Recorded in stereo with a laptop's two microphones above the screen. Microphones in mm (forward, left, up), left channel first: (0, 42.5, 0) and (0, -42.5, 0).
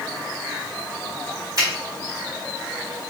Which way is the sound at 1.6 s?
45° right (ahead or behind).